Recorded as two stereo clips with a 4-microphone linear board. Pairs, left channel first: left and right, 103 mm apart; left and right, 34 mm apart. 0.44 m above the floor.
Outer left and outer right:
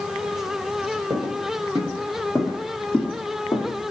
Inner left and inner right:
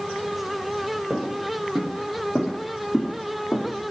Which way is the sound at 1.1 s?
40° right (ahead or behind).